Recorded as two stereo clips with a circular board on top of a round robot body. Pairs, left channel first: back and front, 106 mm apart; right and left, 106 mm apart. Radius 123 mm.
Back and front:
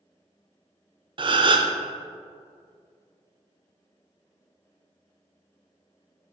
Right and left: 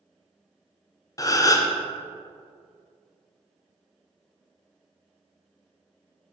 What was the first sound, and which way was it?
A gasp, 35° right.